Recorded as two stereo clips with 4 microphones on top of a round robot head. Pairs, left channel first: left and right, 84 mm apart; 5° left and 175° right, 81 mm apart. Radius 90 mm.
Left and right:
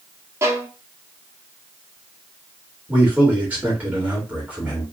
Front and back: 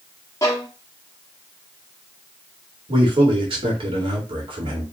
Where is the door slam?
I don't hear a door slam.